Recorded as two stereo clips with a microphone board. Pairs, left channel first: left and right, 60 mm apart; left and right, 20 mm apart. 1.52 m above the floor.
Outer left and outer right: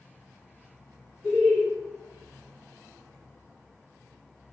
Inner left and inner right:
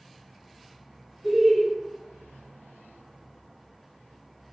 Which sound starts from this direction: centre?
Laughter, at 1.2 s.